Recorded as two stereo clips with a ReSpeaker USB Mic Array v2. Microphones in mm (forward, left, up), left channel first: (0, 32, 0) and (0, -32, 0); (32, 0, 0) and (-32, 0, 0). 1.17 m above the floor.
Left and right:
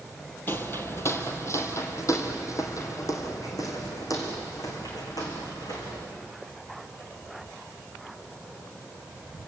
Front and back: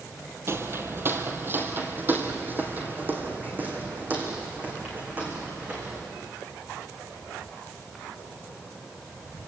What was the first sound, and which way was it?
Footsteps, 140° left.